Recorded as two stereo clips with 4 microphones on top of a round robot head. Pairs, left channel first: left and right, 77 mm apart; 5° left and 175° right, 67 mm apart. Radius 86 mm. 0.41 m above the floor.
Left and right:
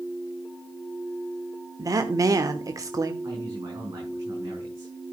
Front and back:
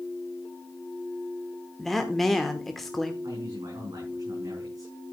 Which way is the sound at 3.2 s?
140° right.